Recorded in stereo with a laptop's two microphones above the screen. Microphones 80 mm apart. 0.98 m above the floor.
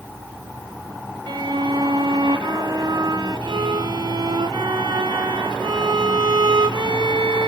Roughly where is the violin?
Right.